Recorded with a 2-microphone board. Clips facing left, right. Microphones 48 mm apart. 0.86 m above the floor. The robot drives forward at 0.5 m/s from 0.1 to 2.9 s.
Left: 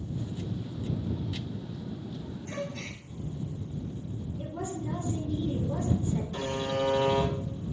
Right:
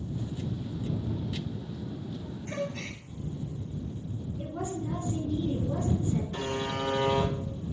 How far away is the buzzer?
About 1.5 m.